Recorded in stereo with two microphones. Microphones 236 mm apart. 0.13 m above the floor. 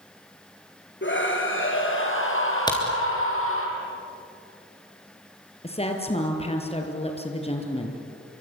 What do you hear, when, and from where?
1.0 s a scream: 55° left (ahead or behind), 3.5 m; by 3.7 s 65° left (ahead or behind), 5 m
2.7 s a crack: 15° left (ahead or behind), 4 m
5.6 s a woman speaking: 25° left (ahead or behind), 3.5 m